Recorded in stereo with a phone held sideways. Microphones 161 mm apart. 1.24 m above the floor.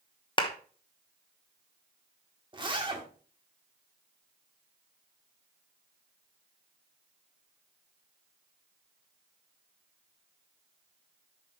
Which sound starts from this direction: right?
A zipper, at 2.5 s.